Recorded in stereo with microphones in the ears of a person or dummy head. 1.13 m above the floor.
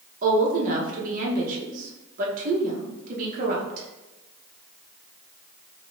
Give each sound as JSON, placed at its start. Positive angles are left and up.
{"t": 0.2, "sound": "a woman speaking", "side_deg": -50, "distance_m": 0.9}